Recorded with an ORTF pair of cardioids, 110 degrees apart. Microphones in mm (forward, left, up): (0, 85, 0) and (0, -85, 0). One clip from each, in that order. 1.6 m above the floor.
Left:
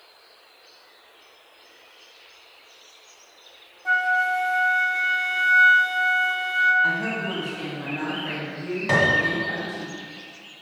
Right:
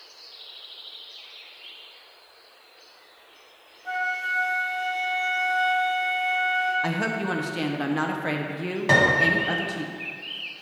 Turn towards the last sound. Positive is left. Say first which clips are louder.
# right 1 dB
turn(degrees=-20)